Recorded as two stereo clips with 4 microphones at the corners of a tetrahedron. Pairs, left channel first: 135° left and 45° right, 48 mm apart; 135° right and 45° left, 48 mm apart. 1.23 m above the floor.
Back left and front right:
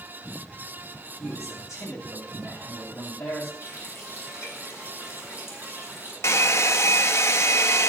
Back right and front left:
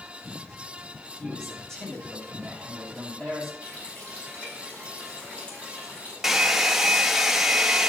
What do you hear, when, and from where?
1.2 s a man speaking: 145° left, 9 m
3.6 s a running tap: 165° left, 6 m
6.2 s a hair dryer: 125° left, 0.9 m